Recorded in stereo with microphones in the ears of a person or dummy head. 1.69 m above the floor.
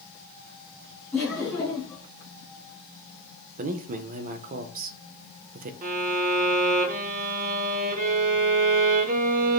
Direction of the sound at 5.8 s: 45° right (ahead or behind).